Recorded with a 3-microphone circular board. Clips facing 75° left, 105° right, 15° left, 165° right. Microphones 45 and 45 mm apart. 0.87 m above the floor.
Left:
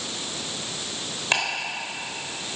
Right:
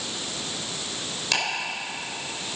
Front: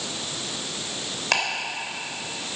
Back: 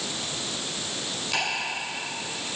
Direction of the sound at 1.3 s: 15° left.